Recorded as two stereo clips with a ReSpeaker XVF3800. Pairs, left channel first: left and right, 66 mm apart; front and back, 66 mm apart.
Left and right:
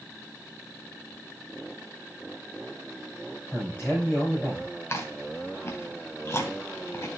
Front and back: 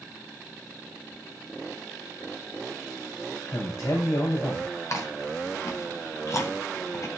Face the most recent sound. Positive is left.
turn(degrees=40)